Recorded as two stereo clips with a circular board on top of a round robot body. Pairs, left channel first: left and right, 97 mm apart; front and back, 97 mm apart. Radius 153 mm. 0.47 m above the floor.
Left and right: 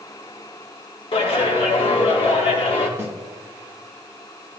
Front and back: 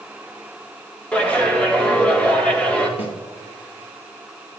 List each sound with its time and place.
1.1 s a clap: 75° left, 1.9 m
3.0 s a snare drum: 25° right, 1.5 m